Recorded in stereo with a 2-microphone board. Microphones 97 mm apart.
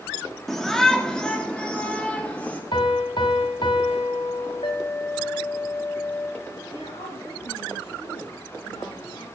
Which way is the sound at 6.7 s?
80° left.